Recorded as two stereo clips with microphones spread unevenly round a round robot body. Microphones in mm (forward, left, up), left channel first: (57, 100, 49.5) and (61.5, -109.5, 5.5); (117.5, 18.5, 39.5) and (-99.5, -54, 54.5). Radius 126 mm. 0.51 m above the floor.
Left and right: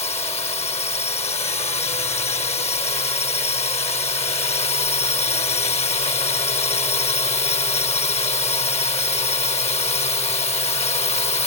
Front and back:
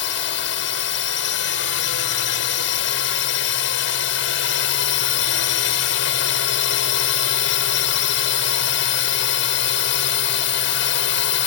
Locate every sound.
0.0 s a drone: 30° left